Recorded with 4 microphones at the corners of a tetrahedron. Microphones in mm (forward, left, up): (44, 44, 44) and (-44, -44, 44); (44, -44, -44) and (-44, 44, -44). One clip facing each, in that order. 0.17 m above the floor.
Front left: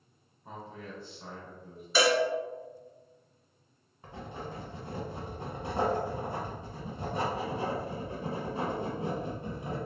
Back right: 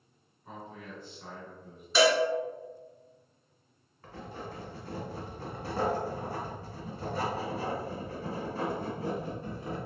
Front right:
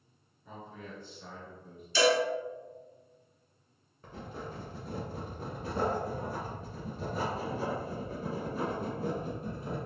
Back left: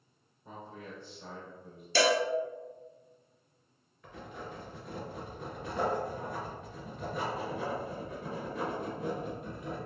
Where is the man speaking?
85° left, 1.9 m.